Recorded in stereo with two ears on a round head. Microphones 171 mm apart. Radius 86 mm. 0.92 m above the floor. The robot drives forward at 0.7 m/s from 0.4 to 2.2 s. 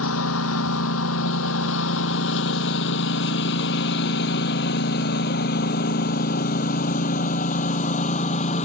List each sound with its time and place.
0.0 s a lawn mower: 85° left; by 8.7 s 35° left (ahead or behind)